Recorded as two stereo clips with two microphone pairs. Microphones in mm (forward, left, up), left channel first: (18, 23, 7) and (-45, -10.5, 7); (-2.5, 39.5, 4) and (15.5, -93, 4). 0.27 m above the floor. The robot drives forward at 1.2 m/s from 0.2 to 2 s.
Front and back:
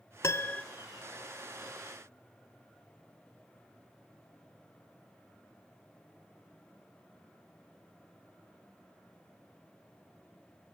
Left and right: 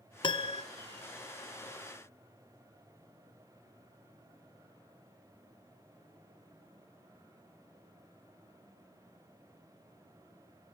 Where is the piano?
55° left, 0.8 m; by 0.6 s 100° left, 0.7 m.